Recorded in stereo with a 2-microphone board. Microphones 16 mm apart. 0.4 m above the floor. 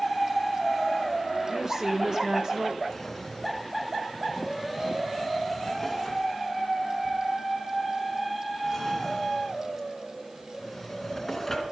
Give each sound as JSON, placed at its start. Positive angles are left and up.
{"t": 1.5, "sound": "a woman speaking", "side_deg": -40, "distance_m": 1.3}
{"t": 2.9, "sound": "a drawer", "side_deg": 15, "distance_m": 2.0}